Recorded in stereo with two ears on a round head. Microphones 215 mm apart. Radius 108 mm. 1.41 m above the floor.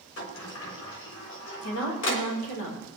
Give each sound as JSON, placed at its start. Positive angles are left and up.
{"t": 0.2, "sound": "a sliding door", "side_deg": 60, "distance_m": 3.5}
{"t": 1.6, "sound": "a woman speaking", "side_deg": 75, "distance_m": 5.0}